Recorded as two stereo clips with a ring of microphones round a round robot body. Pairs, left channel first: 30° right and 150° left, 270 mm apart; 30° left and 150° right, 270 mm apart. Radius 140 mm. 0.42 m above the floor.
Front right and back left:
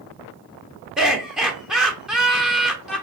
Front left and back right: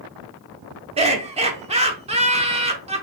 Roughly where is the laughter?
Behind right.